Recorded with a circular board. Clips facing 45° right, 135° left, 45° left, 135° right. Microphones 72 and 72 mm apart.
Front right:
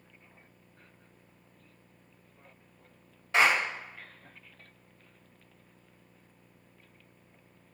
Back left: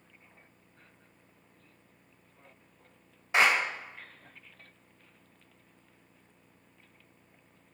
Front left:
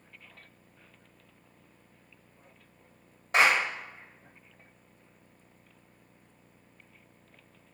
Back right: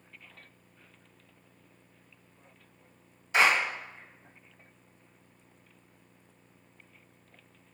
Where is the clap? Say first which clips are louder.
Even, front left 1 dB; 60° left, 1.6 m.